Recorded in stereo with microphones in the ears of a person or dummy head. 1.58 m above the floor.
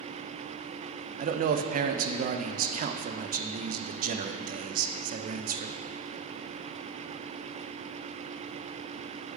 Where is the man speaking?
50° right (ahead or behind), 0.5 m.